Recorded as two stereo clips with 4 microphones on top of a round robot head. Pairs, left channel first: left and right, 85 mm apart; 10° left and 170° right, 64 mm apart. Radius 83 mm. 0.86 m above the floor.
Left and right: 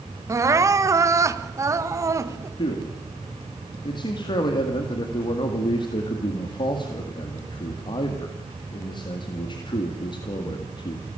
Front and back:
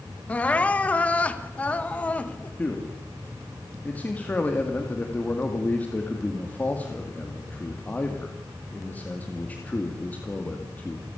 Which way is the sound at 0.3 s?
55° right.